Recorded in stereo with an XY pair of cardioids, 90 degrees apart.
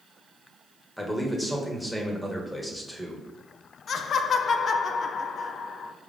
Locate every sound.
1.0 s a man speaking: 5° left, 1.1 m
3.9 s laughter: 55° left, 0.5 m